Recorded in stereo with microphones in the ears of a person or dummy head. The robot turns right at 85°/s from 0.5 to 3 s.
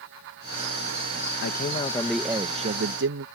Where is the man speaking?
120° left; by 3.2 s 105° right.